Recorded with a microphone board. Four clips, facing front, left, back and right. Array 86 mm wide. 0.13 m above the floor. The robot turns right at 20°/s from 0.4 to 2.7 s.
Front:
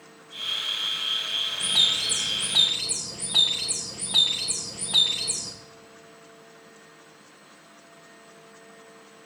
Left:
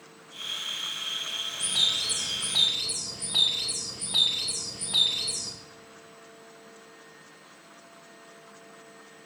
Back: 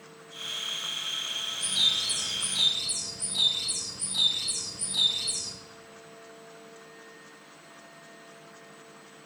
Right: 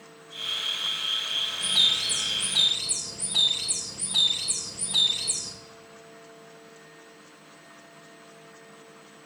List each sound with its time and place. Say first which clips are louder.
1.6 s a bird: right 3 dB, front 4 dB; 10° right, 2.5 m; by 5.5 s 15° left, 2.5 m